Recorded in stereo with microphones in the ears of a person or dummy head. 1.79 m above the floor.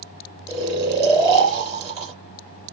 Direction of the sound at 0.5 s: 35° right (ahead or behind).